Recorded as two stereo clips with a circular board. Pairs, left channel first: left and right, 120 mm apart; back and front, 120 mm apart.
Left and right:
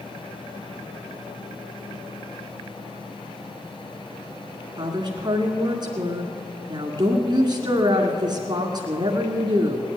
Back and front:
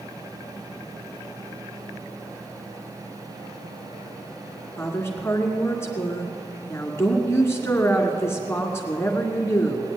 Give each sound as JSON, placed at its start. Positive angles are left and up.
{"t": 4.8, "sound": "a woman speaking", "azimuth_deg": -120, "distance_m": 1.8}